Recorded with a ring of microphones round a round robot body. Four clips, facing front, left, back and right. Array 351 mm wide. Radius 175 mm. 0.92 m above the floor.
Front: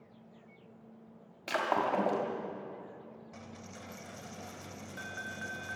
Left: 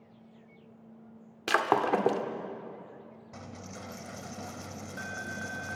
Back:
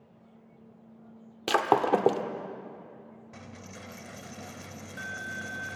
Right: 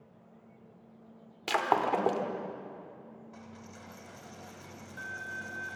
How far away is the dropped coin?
About 0.9 m.